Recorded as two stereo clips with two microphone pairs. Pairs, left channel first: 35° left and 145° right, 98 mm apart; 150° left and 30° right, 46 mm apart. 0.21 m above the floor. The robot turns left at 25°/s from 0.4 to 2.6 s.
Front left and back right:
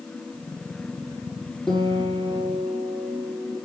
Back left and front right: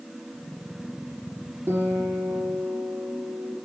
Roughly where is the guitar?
Ahead right.